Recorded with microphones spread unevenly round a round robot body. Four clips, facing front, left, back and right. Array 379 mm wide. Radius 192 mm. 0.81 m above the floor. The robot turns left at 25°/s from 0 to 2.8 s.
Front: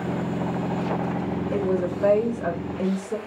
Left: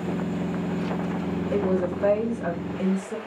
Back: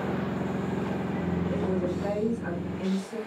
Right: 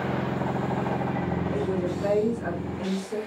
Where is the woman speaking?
50° left, 1.3 m; by 3.2 s 15° left, 1.3 m.